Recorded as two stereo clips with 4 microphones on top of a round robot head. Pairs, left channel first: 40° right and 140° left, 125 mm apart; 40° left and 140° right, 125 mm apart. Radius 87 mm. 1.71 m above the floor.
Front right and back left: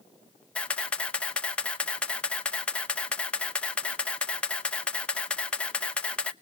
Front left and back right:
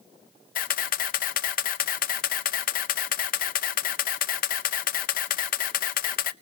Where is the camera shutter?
45° left, 0.8 m.